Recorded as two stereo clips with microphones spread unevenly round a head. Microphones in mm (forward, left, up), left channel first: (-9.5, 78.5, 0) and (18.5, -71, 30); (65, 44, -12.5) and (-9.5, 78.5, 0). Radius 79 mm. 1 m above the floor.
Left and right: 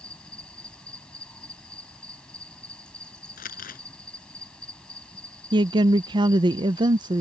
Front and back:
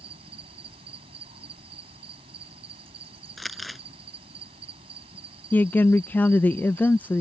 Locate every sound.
0.0 s an insect: 175° right
3.4 s crumpling: 65° left
5.5 s a woman speaking: 25° right